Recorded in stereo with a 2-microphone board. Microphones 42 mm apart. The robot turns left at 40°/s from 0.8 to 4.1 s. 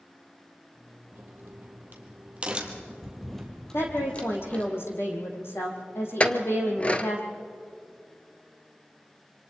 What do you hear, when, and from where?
1.1 s a crack: 65° right (ahead or behind), 2.5 m; by 4.7 s 30° left (ahead or behind), 2.5 m
3.7 s a woman speaking: 75° left (ahead or behind), 3.5 m; by 7.2 s 70° left (ahead or behind), 3.5 m
6.2 s a clink: 30° left (ahead or behind), 1.0 m